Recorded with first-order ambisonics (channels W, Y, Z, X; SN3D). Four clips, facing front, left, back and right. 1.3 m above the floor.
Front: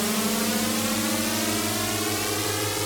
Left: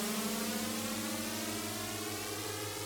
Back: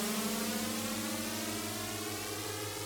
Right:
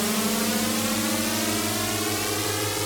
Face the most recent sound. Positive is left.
turn(degrees=-45)